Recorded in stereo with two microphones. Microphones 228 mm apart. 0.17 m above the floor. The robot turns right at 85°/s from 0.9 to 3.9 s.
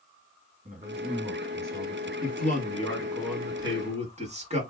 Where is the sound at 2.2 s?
90° left, 1.2 m; by 4.6 s 130° right, 1.2 m.